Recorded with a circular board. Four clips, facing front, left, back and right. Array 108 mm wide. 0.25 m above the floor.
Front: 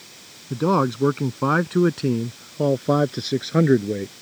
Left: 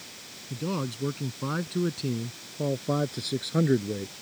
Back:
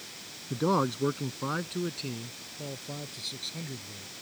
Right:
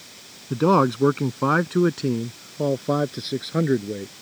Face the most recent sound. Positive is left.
turn(degrees=-10)